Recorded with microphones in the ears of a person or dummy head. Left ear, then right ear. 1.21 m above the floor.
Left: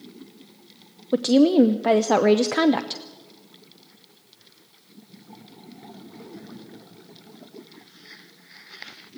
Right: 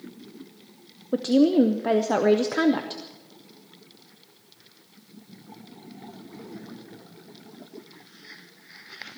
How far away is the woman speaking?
About 0.5 m.